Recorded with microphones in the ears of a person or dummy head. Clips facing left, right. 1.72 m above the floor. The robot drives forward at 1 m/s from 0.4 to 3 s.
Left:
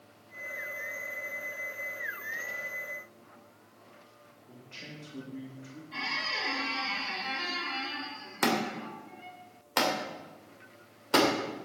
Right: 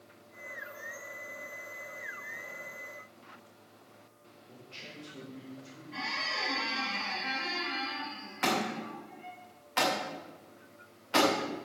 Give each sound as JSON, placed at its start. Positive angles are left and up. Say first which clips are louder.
{"t": 4.5, "sound": "a man speaking", "louder": "left 2 dB", "side_deg": 60, "distance_m": 4.5}
{"t": 5.9, "sound": "a squeak", "louder": "right 1 dB", "side_deg": 60, "distance_m": 6.0}
{"t": 8.4, "sound": "a thud", "louder": "left 2 dB", "side_deg": 60, "distance_m": 2.5}